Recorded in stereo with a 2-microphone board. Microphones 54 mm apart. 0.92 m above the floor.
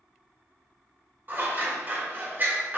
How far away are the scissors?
About 0.7 m.